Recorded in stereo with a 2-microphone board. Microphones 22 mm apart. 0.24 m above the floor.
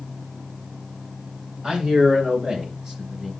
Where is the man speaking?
35° right (ahead or behind), 5 m; by 3.3 s 20° right (ahead or behind), 4 m.